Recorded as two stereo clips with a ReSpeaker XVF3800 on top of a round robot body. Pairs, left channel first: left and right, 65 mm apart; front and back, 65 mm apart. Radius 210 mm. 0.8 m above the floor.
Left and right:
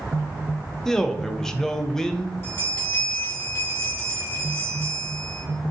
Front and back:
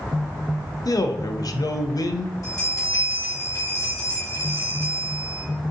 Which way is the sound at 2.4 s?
40° left.